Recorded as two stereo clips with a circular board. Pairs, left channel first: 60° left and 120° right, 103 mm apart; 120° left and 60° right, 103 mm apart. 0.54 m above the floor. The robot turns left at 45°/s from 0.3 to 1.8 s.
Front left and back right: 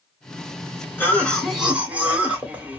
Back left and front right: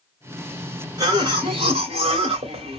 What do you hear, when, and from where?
1.0 s a cough: 10° right, 1.9 m; by 2.8 s 45° right, 1.9 m